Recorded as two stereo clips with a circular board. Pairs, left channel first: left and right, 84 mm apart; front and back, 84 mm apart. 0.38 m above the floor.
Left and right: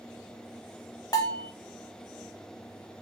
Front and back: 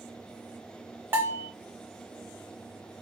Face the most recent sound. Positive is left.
turn(degrees=120)